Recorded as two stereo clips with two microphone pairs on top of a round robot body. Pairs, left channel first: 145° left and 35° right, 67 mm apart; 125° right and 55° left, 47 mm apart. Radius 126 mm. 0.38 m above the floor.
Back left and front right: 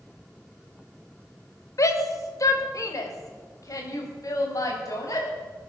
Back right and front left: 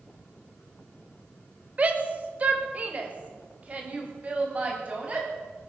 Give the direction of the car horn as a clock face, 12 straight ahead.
I don't hear a car horn.